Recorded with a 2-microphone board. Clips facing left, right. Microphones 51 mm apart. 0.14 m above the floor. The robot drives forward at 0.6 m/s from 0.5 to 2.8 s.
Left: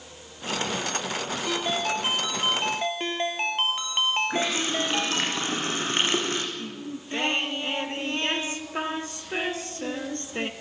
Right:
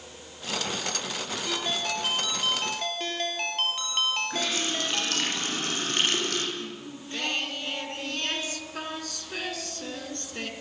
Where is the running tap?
30° left (ahead or behind), 5 m.